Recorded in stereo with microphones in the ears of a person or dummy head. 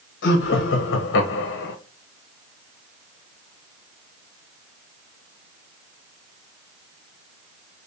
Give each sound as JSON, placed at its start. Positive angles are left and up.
{"t": 0.2, "sound": "laughter", "side_deg": 70, "distance_m": 1.3}